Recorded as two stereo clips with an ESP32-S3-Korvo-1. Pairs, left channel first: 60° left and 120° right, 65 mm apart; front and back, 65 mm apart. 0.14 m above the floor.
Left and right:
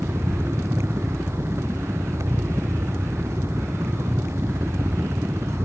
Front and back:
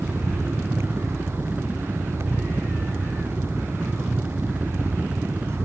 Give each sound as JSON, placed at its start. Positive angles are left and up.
{"t": 0.0, "sound": "a helicopter", "azimuth_deg": -120}